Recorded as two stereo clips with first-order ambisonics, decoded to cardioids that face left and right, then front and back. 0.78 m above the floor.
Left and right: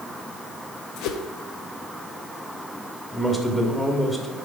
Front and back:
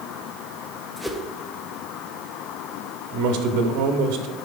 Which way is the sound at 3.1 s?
170° left.